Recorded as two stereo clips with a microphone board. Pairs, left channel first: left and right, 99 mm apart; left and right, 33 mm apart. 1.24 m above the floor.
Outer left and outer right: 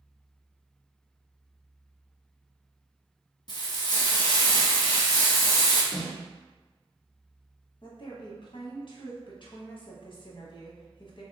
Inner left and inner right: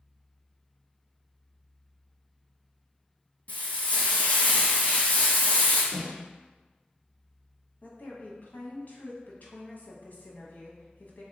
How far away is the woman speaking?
About 1.0 m.